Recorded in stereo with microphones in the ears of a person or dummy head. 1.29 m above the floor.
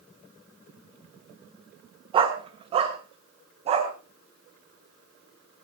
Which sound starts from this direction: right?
A dog barking, at 2.1 s.